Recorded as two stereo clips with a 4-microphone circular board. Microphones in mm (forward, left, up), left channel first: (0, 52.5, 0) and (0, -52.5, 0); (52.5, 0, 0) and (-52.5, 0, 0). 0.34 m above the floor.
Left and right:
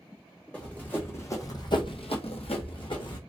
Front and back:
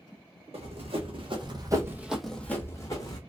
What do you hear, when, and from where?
0.5 s running footsteps: 170° left, 1.4 m; by 3.2 s 50° left, 1.3 m